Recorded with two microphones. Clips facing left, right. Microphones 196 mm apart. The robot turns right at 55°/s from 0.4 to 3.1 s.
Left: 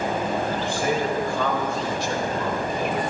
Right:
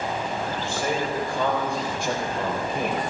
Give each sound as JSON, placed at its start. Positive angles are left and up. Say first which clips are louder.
{"t": 0.6, "sound": "a man speaking", "louder": "left 3 dB", "azimuth_deg": 160, "distance_m": 4.0}